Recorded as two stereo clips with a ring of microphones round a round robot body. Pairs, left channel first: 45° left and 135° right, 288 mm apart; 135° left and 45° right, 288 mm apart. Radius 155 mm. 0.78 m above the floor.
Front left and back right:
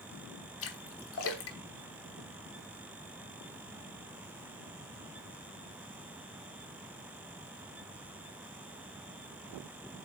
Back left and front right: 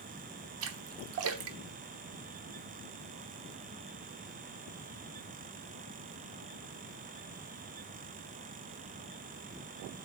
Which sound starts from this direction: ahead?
A splash, at 0.6 s.